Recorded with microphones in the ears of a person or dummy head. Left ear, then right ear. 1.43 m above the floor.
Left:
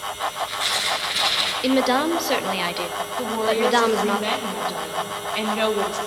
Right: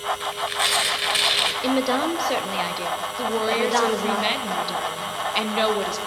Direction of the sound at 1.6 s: 5° left (ahead or behind).